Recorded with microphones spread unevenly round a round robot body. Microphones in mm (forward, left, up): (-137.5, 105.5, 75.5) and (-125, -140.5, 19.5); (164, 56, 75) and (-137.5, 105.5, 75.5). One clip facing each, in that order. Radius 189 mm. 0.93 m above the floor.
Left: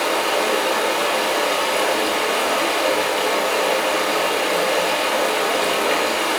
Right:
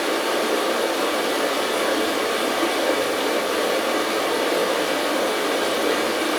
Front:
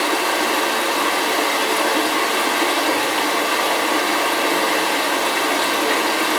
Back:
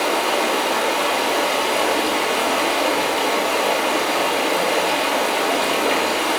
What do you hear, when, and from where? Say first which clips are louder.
0.0 s running water: left 1 dB, even; 55° left, 4 m